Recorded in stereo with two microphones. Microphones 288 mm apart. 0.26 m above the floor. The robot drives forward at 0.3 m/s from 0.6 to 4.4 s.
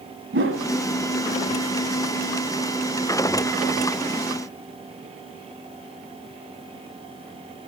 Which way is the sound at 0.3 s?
45° right (ahead or behind).